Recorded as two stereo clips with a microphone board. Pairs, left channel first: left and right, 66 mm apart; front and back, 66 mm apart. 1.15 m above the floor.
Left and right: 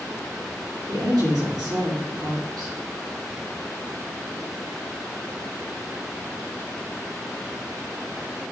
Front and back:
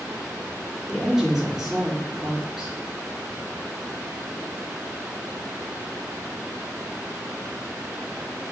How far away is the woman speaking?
About 3.5 m.